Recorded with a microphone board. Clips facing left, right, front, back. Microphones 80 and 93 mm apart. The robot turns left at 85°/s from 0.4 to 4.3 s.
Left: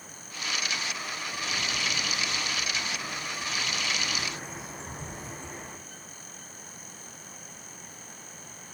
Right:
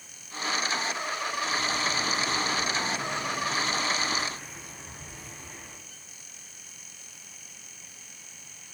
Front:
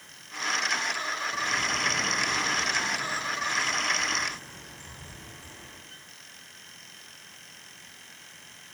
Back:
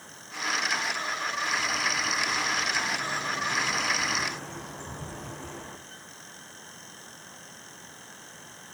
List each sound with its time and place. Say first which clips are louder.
1.3 s a bird: right 3 dB, front 1 dB; 45° left, 5 m; by 5.8 s 155° left, 5 m